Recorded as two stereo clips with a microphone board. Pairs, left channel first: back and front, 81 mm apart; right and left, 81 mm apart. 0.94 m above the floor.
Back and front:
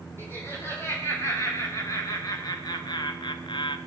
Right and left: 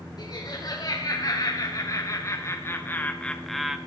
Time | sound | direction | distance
0.2 | laughter | 120° right | 3 m